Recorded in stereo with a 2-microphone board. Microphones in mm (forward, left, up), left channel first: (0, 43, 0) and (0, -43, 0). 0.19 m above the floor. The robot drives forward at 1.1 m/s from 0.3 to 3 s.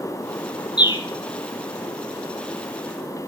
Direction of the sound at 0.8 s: 60° left (ahead or behind).